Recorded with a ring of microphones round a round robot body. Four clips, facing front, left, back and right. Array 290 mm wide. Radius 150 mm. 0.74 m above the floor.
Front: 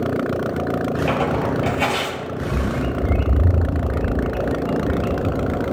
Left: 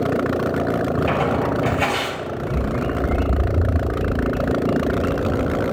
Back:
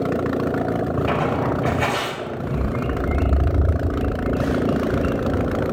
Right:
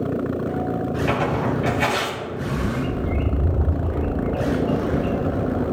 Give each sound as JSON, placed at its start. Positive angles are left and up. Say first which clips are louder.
{"t": 1.1, "sound": "tearing paper", "louder": "left 2 dB, front 1 dB", "azimuth_deg": 40, "distance_m": 3.0}
{"t": 2.4, "sound": "a bird", "louder": "left 1 dB, front 2 dB", "azimuth_deg": 10, "distance_m": 1.8}